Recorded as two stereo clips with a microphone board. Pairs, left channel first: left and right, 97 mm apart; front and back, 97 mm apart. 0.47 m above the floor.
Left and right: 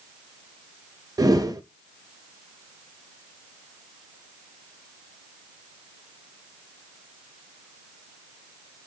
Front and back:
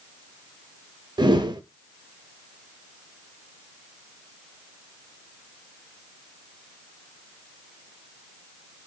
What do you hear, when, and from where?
1.2 s a whoosh: 140° right, 0.5 m